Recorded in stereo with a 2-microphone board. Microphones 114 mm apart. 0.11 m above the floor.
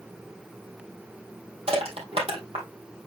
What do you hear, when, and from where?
1.7 s crushing: 65° right (ahead or behind), 3 m